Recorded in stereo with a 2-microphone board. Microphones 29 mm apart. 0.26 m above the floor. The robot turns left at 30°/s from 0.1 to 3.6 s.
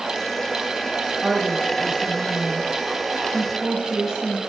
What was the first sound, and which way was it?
A woman speaking, 95° right.